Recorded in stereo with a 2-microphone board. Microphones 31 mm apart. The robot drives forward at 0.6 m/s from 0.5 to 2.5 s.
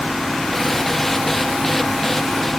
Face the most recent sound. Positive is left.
No sound to turn to.